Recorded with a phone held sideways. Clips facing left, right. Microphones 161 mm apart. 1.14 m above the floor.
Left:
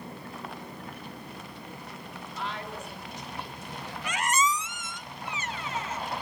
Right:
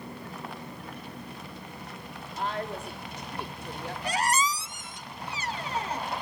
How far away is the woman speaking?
About 3.5 m.